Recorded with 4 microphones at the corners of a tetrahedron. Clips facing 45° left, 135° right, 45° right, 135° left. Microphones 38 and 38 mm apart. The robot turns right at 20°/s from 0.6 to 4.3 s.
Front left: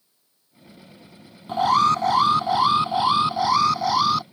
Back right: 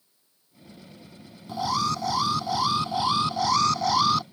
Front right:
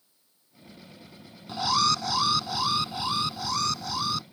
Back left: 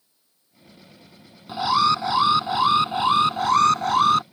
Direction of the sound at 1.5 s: 70° left.